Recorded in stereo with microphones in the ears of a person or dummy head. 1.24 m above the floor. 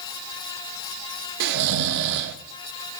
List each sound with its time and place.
1.4 s snoring: 65° right (ahead or behind), 0.7 m